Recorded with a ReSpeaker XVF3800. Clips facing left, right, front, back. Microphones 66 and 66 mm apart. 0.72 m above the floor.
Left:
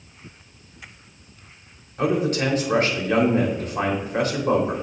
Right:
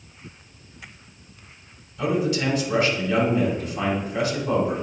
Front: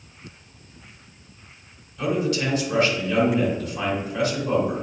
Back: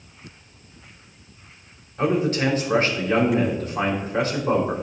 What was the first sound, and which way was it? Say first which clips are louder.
A man speaking: left 2 dB, back 2 dB; 130° left.